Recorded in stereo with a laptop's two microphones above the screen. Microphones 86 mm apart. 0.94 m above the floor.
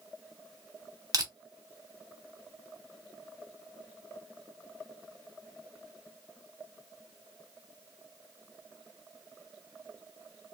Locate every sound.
1.1 s crushing: 45° right (ahead or behind), 0.9 m